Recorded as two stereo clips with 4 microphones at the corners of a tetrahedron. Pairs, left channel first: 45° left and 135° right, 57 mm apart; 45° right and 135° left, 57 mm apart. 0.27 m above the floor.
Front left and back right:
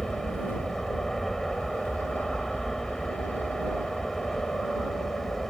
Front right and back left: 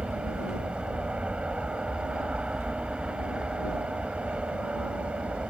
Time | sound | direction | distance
0.0 | an aircraft | 120° left | ?